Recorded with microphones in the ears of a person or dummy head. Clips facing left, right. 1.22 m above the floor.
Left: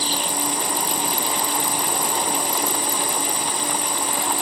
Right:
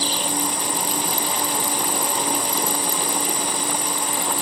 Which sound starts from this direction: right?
An insect, at 0.0 s.